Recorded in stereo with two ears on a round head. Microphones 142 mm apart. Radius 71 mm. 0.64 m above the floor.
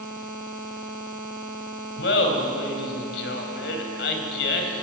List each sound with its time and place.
2.0 s laughter: 75° left (ahead or behind), 3.5 m